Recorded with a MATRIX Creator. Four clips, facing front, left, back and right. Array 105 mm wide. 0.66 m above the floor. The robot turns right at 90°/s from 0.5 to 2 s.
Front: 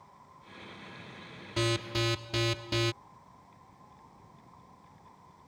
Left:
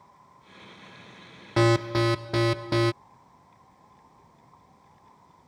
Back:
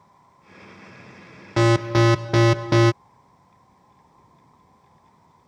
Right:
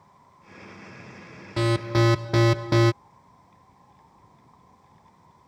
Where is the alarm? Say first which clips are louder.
Left 1 dB, back 14 dB; 150° left; by 2.9 s 170° right.